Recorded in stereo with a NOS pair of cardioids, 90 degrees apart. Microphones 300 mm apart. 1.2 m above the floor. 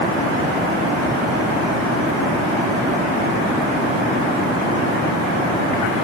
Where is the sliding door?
No sliding door in this recording.